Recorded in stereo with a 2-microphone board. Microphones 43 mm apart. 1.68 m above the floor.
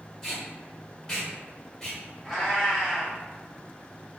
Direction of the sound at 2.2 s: 5° left (ahead or behind).